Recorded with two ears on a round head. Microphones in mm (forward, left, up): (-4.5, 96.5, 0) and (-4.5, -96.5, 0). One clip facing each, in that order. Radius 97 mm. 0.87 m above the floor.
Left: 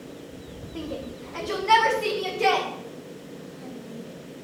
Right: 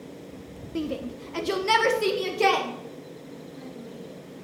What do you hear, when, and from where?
0.8 s a shout: 30° right (ahead or behind), 0.6 m; by 4.4 s 60° right (ahead or behind), 2.5 m